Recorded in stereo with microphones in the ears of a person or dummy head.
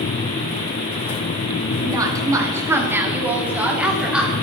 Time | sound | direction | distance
1.8 | a woman speaking | 25° right (ahead or behind) | 2 m